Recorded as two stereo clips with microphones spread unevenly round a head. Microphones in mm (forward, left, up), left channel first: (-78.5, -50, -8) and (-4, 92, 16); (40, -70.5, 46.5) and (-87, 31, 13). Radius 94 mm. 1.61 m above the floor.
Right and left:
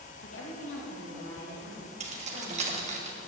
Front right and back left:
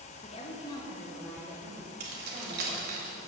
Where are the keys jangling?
100° left, 1.7 m.